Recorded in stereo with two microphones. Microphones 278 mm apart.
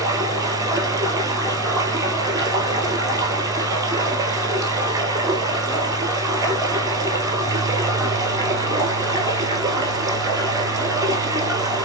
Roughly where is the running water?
Centre.